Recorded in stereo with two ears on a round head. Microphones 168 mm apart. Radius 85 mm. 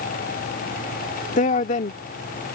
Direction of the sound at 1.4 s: 40° left (ahead or behind).